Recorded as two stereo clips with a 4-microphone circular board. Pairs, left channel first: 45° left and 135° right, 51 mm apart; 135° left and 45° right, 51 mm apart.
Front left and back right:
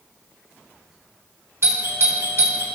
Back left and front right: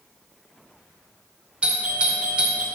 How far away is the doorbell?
About 1.7 m.